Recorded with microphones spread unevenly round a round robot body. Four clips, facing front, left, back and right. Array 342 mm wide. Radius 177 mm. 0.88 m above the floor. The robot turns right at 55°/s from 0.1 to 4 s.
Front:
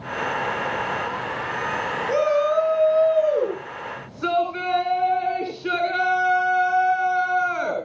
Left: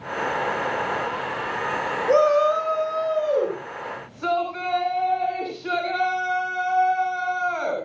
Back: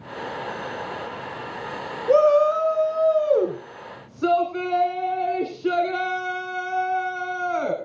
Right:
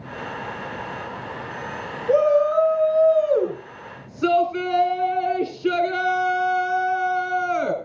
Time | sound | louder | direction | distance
2.1 | a shout | right 1 dB, back 4 dB | 130° left | 4.5 m